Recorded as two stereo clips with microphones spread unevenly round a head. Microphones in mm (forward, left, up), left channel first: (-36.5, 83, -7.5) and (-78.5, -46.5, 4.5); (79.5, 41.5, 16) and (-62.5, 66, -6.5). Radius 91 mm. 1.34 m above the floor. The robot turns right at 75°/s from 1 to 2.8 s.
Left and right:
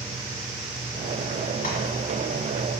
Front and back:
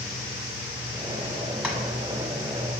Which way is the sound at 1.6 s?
80° left.